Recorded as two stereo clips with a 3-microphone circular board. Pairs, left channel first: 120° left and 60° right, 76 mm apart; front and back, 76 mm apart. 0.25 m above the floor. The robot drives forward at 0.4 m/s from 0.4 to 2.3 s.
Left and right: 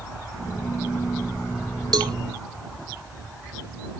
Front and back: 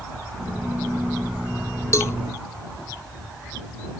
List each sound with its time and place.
1.9 s a cowbell: 45° right; by 2.1 s 50° right